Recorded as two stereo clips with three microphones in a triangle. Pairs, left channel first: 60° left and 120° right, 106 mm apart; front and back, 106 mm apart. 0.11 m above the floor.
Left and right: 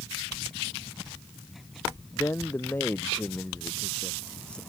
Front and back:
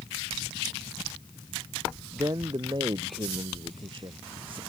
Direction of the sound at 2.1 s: 125° left.